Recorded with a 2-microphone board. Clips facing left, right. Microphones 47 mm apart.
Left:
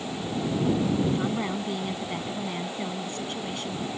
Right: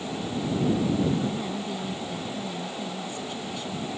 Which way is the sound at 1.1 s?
55° left (ahead or behind).